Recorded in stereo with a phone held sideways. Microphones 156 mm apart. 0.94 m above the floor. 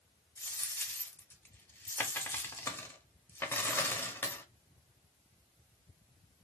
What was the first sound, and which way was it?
A dropped coin, 15° left (ahead or behind).